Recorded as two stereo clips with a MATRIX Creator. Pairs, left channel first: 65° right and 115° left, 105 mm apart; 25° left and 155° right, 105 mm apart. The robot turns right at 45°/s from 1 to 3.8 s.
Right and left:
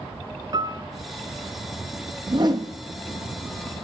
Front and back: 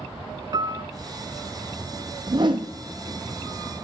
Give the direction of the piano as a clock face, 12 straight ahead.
7 o'clock.